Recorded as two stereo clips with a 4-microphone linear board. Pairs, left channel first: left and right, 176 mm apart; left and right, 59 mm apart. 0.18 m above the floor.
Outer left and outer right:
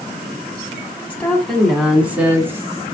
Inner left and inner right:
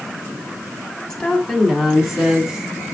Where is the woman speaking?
10° left (ahead or behind), 1.6 m; by 2.7 s 15° right (ahead or behind), 2 m.